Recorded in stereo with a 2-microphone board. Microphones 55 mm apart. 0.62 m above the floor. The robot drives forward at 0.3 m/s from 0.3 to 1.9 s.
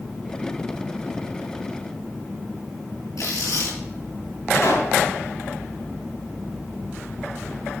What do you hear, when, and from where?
3.2 s tearing paper: 80° left, 5 m
4.5 s a pop: 60° left (ahead or behind), 5 m